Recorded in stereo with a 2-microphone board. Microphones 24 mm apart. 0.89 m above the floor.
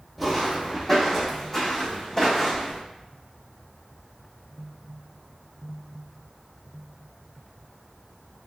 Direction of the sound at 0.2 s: Centre (ahead or behind).